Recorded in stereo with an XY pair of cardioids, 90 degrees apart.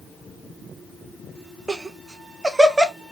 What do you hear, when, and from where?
1.7 s laughter: 25° right, 0.7 m